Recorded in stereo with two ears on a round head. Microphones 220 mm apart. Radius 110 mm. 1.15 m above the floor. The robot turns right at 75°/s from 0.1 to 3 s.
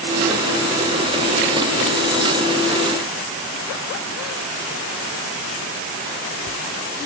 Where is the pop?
I don't hear a pop.